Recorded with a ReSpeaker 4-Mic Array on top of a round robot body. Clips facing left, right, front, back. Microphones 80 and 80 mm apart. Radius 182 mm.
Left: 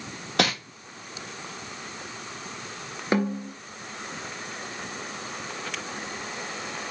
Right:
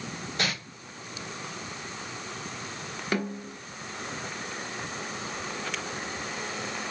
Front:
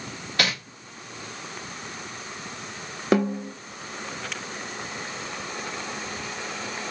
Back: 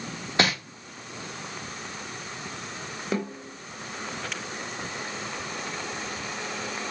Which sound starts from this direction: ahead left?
A snare drum, at 3.1 s.